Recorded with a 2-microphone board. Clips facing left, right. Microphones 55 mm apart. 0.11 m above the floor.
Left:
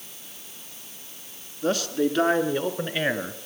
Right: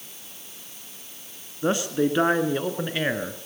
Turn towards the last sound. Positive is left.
turn(degrees=5)  # may be behind; listen again after turning